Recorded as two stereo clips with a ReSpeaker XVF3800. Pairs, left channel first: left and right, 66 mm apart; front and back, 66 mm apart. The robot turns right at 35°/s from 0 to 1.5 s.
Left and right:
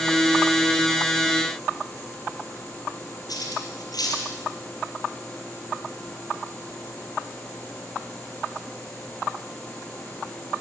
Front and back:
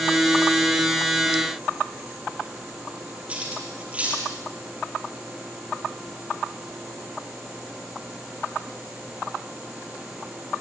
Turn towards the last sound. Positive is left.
turn(degrees=110)